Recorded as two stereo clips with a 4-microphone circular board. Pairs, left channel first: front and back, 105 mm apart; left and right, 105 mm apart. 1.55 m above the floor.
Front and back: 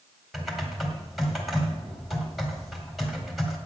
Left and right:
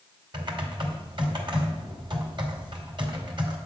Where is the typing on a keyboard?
90° right, 1.9 m.